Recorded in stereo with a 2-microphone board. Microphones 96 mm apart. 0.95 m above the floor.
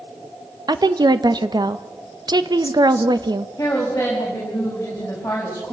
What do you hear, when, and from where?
0.7 s a woman speaking: 50° right (ahead or behind), 1.0 m
3.6 s a woman speaking: 25° left (ahead or behind), 6 m